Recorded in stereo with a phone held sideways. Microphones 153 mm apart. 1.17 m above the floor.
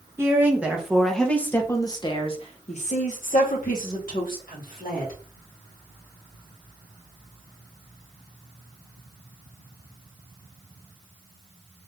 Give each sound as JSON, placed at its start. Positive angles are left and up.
{"t": 0.2, "sound": "a woman speaking", "side_deg": -15, "distance_m": 1.3}